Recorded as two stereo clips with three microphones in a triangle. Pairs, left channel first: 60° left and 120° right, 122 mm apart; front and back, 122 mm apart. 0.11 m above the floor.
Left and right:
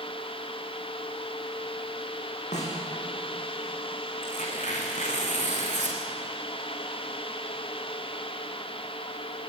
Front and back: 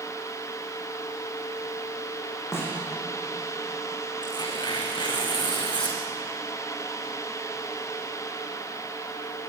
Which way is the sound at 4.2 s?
50° left.